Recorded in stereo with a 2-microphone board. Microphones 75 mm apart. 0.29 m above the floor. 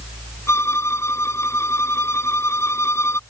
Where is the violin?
40° left (ahead or behind).